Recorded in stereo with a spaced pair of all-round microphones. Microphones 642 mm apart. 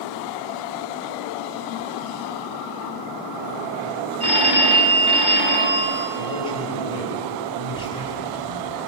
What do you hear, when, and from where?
4.2 s a phone ringing: 40° left (ahead or behind), 3 m
6.2 s a man speaking: 90° left, 5.5 m
7.7 s a child speaking: 75° right (ahead or behind), 2.5 m